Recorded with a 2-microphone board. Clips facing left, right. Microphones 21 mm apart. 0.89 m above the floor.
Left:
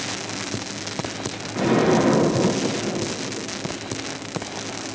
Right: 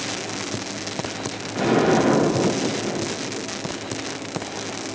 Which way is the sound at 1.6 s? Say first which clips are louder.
Even; 20° right (ahead or behind).